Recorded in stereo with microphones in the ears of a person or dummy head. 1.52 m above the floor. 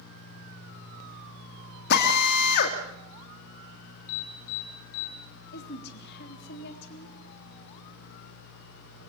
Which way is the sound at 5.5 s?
60° left (ahead or behind).